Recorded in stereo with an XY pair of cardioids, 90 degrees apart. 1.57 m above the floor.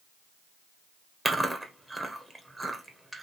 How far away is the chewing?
About 1.2 m.